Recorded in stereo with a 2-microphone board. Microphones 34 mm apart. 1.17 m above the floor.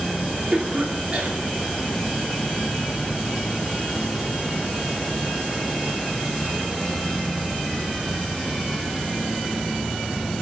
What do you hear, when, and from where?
0.5 s a cough: 60° right (ahead or behind), 4 m